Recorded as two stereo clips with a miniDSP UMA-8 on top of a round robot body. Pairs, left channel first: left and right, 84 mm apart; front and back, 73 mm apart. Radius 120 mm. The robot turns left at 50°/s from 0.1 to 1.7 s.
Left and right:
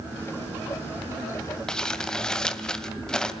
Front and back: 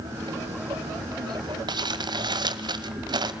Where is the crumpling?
170° left, 2 m.